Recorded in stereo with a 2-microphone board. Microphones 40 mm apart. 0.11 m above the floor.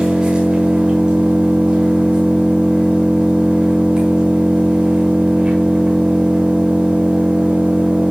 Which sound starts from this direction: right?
An engine running, at 0.0 s.